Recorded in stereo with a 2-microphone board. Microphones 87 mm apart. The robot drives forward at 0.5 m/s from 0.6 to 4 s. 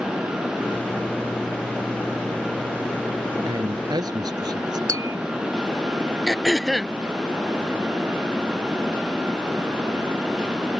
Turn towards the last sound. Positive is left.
turn(degrees=0)  # may be behind; listen again after turning